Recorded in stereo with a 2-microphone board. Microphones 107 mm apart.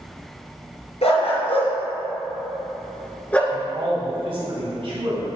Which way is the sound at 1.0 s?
80° left.